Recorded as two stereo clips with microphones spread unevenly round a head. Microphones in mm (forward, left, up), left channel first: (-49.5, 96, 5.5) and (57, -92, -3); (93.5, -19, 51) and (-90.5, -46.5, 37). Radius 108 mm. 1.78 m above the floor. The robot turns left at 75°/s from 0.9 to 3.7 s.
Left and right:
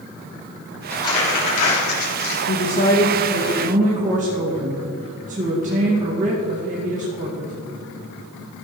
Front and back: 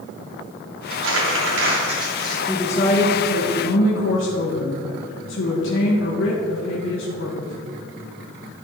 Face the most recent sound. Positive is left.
turn(degrees=-5)